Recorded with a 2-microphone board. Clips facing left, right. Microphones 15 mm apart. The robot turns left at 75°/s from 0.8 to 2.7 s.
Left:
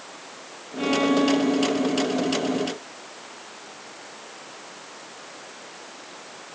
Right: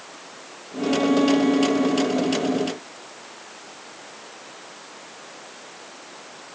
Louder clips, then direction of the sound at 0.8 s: Right 1 dB; 35° left.